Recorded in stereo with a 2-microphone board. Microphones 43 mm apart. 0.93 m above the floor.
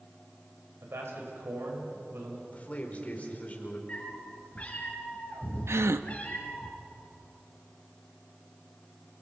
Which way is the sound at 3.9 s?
35° left (ahead or behind).